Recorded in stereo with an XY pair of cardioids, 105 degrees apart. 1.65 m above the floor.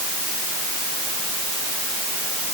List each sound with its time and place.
Only background noise.